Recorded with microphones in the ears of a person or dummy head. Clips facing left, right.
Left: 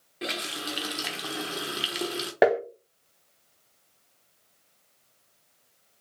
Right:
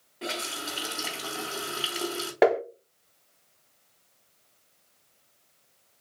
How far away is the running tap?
About 0.9 m.